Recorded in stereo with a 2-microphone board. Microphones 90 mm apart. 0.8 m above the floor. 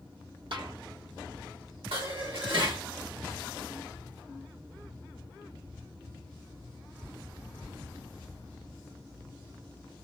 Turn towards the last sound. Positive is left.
turn(degrees=-80)